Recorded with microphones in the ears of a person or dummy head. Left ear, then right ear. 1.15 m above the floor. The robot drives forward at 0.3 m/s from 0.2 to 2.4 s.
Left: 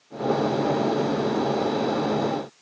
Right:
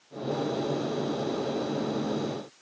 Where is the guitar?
I don't hear a guitar.